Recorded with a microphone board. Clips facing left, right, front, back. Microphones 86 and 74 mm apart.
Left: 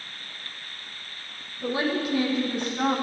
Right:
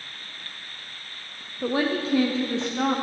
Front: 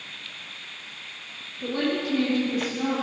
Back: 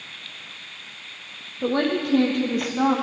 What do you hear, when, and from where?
1.6 s a woman speaking: 140° right, 4.5 m; by 3.0 s 160° right, 4.5 m